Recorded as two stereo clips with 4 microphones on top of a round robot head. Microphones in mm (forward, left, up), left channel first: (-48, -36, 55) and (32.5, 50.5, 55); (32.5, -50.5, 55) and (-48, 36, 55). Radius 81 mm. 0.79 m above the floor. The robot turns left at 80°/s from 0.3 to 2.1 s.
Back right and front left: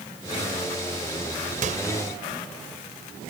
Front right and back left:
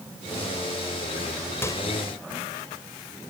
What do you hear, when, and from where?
1.6 s a microwave: 25° left; by 1.9 s 5° left